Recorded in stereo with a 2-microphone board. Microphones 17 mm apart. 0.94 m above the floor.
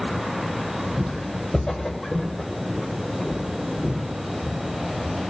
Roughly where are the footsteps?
Left.